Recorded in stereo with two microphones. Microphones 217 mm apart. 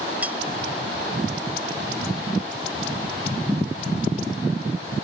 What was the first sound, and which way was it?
Cutlery clinking, 5° right (ahead or behind).